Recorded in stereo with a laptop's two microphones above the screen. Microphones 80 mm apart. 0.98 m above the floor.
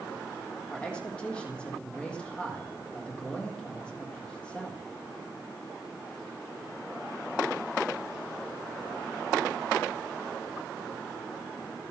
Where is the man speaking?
15° left (ahead or behind), 1.7 m.